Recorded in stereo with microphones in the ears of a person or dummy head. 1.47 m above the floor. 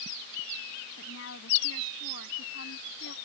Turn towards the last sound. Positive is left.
turn(degrees=65)  # may be behind; listen again after turning